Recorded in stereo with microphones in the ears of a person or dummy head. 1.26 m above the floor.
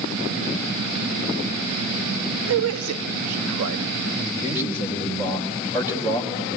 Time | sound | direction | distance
2.5 | a man speaking | 90° right | 1.3 m
4.2 | a man speaking | 10° right (ahead or behind) | 5 m